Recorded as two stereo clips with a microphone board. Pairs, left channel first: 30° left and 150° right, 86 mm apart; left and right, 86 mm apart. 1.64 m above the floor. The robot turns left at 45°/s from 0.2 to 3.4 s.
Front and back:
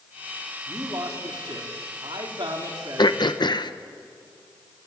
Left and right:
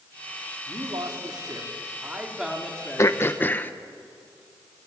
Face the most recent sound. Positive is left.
turn(degrees=25)